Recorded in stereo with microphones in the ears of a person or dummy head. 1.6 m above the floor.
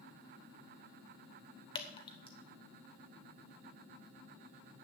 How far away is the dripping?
About 1.1 m.